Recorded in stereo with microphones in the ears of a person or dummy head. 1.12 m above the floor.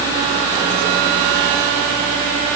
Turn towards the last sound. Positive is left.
No sound to turn to.